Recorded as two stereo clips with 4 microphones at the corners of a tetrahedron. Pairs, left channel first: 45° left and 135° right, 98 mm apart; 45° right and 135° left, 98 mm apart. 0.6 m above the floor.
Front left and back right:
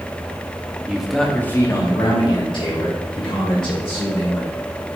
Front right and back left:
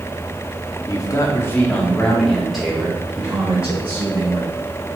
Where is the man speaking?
60° right, 1.0 m; by 4.5 s 60° left, 2.5 m.